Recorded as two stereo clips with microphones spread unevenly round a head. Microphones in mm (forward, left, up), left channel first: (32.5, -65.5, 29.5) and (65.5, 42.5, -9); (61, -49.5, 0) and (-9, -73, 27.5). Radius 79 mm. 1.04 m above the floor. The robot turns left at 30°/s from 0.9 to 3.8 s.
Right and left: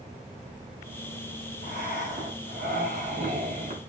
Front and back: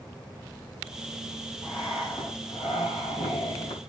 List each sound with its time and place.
1.6 s breathing: 105° left, 0.9 m; by 3.8 s 35° left, 0.9 m